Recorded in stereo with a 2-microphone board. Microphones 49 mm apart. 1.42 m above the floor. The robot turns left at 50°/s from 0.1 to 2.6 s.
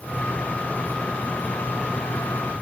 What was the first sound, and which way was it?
Only background noise.